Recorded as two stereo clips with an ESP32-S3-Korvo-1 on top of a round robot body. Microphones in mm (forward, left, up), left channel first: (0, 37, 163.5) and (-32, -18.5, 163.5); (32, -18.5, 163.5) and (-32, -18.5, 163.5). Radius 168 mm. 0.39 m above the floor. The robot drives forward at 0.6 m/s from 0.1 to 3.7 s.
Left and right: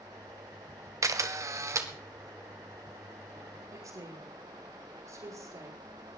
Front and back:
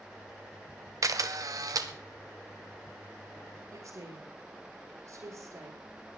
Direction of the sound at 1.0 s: 150° right.